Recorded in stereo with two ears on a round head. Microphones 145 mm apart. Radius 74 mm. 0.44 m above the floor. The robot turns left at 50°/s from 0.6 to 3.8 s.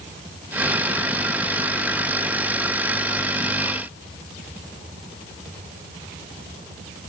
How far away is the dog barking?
I don't hear a dog barking.